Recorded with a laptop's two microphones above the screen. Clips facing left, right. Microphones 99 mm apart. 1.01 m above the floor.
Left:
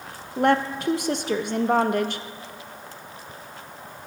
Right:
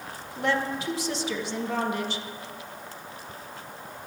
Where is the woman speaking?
55° left (ahead or behind), 0.8 m.